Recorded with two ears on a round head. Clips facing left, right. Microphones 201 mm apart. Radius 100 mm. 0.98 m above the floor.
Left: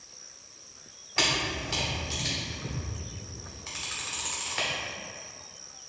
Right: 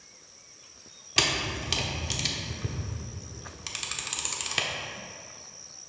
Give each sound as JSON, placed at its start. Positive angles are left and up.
{"t": 1.2, "sound": "a camera shutter", "side_deg": -45, "distance_m": 0.8}